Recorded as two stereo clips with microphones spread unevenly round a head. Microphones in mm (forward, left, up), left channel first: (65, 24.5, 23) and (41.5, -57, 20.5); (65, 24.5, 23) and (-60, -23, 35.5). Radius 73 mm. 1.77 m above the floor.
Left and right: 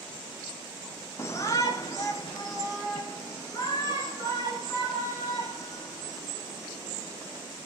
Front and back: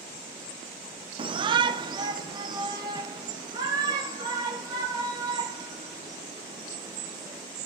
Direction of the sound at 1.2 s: 145° left.